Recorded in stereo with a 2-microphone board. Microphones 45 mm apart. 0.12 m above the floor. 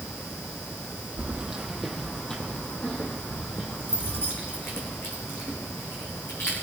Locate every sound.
1.2 s keys jangling: 20° right (ahead or behind), 2.5 m; by 6.5 s 70° left (ahead or behind), 7.5 m